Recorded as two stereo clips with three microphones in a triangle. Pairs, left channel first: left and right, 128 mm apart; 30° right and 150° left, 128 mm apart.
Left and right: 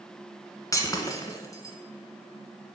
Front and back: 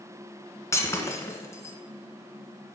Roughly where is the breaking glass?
Ahead left.